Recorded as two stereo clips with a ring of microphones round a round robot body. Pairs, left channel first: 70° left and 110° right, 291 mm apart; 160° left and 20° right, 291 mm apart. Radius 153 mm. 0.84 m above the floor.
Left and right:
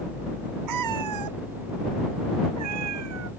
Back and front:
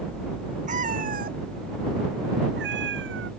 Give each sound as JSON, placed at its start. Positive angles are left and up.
{"t": 0.7, "sound": "a cat meowing", "azimuth_deg": -90}